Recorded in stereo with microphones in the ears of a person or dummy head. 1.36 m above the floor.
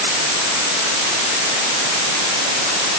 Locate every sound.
Only background noise.